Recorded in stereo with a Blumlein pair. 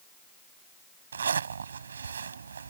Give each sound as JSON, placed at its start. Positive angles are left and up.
{"t": 1.1, "sound": "a zipper", "azimuth_deg": -70}